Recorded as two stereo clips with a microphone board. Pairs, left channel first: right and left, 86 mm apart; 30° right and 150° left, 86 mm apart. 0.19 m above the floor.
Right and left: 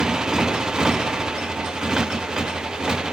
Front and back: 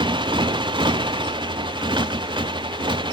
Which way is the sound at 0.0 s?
175° left.